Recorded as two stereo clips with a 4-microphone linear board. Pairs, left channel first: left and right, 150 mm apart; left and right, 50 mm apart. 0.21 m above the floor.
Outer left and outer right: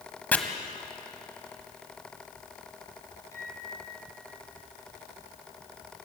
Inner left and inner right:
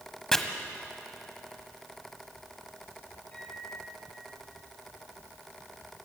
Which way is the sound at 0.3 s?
10° left (ahead or behind).